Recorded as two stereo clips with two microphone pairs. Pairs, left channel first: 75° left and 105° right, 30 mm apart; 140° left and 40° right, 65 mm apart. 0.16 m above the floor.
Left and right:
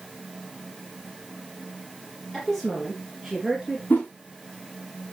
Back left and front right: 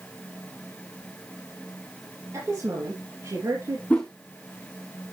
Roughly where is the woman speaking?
Ahead.